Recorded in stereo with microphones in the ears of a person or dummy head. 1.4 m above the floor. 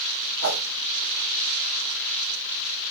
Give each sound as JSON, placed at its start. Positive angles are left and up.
{"t": 0.4, "sound": "a whoosh", "side_deg": -70, "distance_m": 1.0}